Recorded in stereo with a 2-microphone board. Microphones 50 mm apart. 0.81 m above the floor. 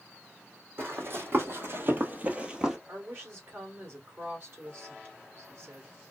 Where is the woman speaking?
45° right (ahead or behind), 2.5 m.